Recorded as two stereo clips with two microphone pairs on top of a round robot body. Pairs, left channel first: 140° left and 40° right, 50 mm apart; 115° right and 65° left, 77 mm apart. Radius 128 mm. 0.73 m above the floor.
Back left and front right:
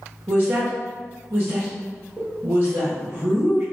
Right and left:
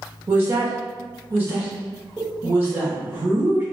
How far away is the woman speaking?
About 1.1 m.